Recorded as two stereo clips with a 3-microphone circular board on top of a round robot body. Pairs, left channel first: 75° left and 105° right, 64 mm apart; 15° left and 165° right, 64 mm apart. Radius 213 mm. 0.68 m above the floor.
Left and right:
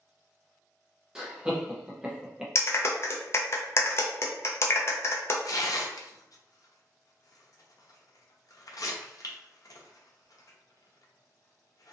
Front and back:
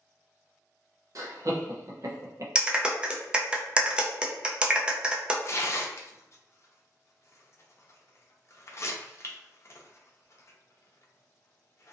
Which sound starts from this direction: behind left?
A clap, at 2.5 s.